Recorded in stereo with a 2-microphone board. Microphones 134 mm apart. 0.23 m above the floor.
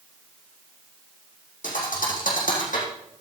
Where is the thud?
85° left, 5 m.